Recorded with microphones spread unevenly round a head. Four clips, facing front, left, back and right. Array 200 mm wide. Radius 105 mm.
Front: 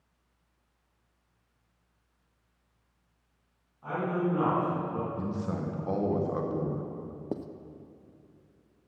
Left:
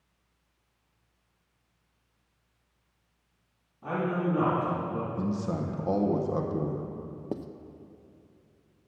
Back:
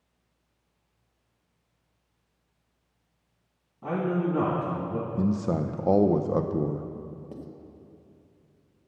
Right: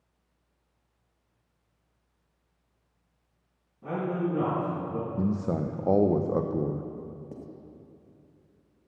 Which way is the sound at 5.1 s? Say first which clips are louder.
Right 2 dB, back 7 dB; 140° right.